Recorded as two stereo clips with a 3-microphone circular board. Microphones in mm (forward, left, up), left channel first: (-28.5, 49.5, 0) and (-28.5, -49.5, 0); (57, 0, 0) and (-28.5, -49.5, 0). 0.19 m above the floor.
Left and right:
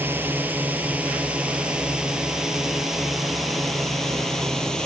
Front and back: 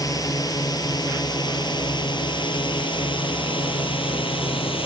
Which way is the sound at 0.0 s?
20° right.